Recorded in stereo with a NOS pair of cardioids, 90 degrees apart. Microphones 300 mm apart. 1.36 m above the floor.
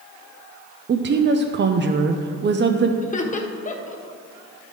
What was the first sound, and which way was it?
A woman speaking, 35° right.